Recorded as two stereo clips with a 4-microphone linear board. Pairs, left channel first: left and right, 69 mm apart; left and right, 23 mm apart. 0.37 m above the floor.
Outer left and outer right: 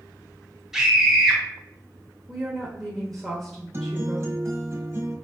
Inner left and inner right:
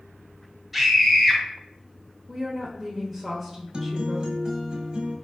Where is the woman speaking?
Centre (ahead or behind), 1.0 m.